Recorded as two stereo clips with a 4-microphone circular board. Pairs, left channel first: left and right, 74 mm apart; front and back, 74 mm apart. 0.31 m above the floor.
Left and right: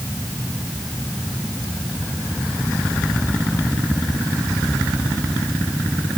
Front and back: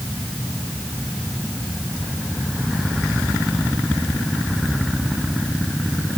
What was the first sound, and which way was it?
Only background noise.